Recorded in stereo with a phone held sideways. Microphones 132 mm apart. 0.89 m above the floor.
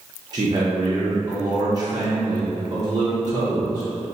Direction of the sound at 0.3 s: 30° right (ahead or behind).